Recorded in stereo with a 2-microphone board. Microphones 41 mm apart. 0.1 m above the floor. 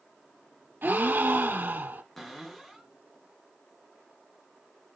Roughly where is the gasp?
Right.